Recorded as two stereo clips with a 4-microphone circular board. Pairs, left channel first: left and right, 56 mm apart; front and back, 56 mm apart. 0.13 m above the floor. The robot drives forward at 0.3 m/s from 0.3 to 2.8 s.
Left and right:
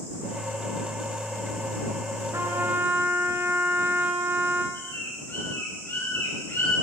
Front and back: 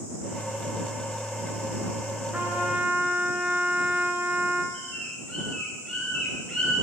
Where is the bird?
75° left, 5.5 m.